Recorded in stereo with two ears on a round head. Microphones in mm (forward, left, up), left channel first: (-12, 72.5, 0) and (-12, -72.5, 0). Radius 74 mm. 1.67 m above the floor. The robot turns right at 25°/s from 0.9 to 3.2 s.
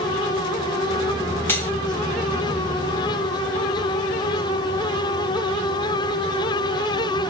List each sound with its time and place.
1.5 s cutlery clinking: 15° left (ahead or behind), 0.7 m; by 1.7 s 10° left (ahead or behind), 0.7 m